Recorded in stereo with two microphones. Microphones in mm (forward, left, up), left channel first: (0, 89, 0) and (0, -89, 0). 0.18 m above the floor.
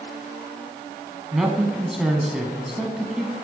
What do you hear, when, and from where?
1.3 s a man speaking: 5° right (ahead or behind), 1.1 m